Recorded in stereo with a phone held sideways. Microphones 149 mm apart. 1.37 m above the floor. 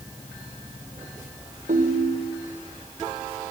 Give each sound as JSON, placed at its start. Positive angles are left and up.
{"t": 1.7, "sound": "a ringtone", "side_deg": -65, "distance_m": 3.0}